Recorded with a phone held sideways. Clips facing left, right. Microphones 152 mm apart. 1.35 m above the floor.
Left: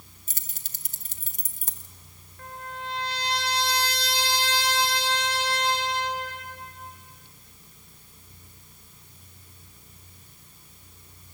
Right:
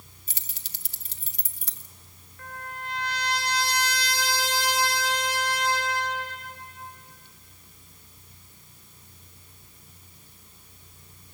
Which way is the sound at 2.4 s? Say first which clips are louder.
Left 1 dB; 30° left (ahead or behind).